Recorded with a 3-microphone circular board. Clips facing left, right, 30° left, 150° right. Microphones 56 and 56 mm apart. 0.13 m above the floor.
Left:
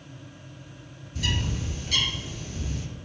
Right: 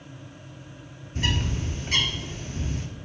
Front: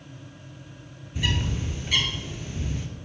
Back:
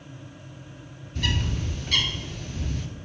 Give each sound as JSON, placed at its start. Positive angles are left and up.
{"t": 1.1, "sound": "a bird", "azimuth_deg": -45, "distance_m": 0.7}